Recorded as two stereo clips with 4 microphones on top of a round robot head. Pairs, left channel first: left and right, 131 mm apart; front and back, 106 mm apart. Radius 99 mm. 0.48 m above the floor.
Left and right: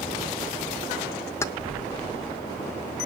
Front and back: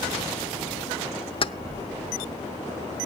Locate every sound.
1.4 s keys jangling: 25° left, 0.8 m